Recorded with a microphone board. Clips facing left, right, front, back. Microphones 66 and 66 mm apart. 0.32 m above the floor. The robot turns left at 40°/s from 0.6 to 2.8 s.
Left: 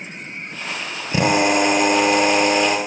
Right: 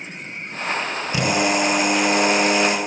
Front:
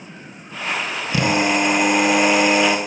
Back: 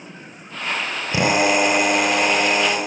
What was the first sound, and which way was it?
A drill, 130° left.